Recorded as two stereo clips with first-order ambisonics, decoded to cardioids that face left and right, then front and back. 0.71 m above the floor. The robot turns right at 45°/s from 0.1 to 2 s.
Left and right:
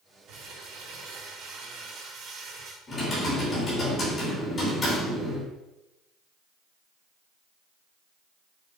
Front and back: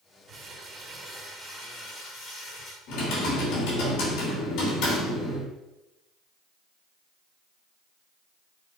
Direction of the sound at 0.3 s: 120° right.